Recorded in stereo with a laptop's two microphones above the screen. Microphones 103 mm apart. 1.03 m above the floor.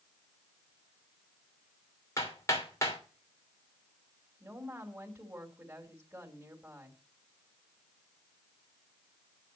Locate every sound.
2.2 s hammering: 30° left (ahead or behind), 2.5 m
4.4 s a woman speaking: 20° right (ahead or behind), 3 m